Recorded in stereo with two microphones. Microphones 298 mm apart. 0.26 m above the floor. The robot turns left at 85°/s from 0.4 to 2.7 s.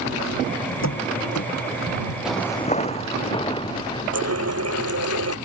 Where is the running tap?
55° right (ahead or behind).